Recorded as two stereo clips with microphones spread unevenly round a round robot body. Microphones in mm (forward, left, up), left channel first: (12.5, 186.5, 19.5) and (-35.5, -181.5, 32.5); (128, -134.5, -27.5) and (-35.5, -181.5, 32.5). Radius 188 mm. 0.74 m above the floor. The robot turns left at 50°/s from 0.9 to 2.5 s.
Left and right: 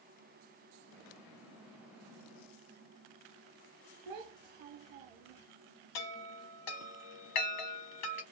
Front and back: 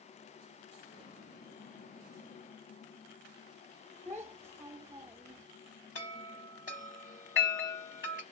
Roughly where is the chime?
Left.